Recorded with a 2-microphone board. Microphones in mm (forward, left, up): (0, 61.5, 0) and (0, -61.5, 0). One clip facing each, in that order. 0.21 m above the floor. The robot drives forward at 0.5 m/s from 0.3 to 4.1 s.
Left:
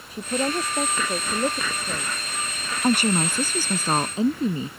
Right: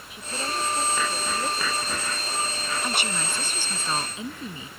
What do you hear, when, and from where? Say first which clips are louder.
0.1 s a man speaking: left 7 dB; 40° left (ahead or behind); by 2.7 s 35° left (ahead or behind)
2.8 s a woman speaking: left 14 dB; 45° left (ahead or behind); by 4.7 s 40° left (ahead or behind)